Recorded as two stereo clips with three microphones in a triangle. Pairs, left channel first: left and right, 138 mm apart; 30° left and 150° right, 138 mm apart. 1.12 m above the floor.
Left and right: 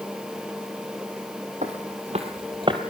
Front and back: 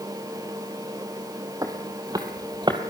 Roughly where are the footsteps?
Right.